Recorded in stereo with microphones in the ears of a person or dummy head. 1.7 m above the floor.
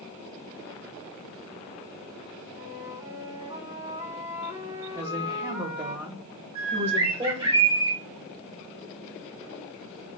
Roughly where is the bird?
Right.